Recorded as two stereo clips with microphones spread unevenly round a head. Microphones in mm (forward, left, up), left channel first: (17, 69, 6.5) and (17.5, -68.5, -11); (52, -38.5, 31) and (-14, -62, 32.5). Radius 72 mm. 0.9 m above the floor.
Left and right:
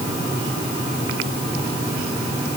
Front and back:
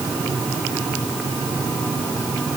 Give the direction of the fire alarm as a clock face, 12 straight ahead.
No fire alarm in this recording.